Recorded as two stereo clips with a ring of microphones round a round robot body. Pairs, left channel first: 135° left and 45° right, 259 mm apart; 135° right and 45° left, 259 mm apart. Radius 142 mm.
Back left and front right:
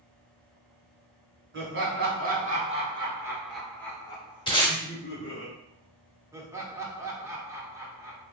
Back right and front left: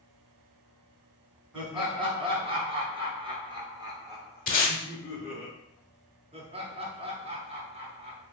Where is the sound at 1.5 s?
20° right, 1.6 m; by 5.5 s 130° left, 1.4 m.